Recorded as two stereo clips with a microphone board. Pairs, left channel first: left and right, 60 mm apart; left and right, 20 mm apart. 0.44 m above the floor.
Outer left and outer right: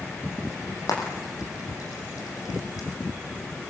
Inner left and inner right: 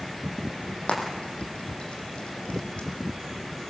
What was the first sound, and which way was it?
Frying, 85° left.